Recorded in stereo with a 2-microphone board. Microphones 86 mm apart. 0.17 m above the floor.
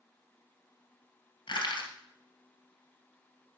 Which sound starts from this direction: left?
Crushing, at 1.5 s.